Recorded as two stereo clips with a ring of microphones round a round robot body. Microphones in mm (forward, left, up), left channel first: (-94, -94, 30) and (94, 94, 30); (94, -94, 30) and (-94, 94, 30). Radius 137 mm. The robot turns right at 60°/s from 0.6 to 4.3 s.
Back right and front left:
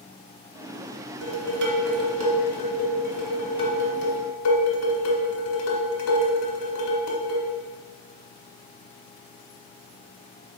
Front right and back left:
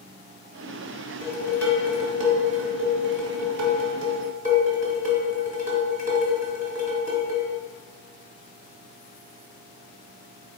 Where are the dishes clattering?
10° left, 0.9 m; by 7.5 s 165° right, 0.9 m.